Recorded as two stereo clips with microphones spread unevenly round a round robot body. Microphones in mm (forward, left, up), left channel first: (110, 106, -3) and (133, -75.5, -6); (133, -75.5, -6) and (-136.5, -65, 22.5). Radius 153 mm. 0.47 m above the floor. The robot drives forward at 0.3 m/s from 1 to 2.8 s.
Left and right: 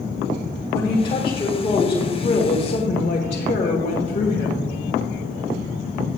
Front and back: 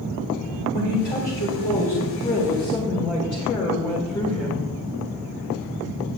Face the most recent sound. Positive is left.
turn(degrees=60)